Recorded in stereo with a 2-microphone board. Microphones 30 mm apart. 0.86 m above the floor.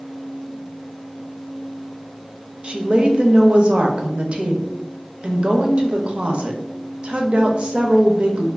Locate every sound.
2.6 s a woman speaking: 40° right (ahead or behind), 0.5 m